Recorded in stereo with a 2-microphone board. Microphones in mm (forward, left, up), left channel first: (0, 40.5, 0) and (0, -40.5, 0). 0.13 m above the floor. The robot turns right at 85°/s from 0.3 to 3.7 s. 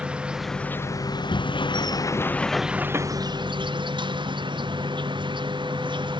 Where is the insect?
10° right; by 6.2 s 85° right.